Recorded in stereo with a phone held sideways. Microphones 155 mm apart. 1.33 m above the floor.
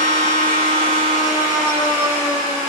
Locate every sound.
0.0 s a machine running: 60° left (ahead or behind), 1.1 m